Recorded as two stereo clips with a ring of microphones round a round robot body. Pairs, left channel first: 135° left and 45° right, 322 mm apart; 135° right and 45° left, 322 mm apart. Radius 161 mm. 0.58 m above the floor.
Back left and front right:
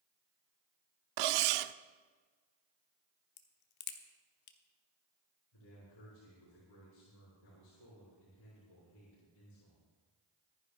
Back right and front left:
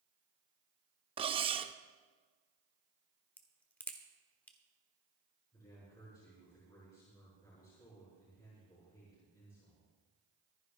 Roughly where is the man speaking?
Behind left.